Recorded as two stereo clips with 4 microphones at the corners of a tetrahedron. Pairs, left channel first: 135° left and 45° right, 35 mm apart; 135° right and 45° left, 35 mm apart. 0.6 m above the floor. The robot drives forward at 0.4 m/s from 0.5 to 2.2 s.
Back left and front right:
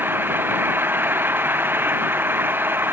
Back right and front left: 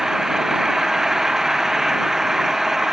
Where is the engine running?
35° right.